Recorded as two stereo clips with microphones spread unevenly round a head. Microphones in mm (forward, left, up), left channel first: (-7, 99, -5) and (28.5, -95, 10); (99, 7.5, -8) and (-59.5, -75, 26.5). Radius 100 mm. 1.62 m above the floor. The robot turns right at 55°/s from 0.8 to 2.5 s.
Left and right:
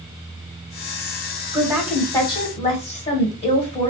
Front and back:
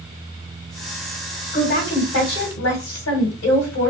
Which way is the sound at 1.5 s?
10° right.